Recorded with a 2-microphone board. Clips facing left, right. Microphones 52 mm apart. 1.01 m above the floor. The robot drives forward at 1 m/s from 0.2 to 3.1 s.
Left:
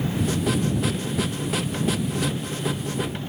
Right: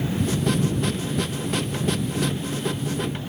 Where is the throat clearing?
No throat clearing in this recording.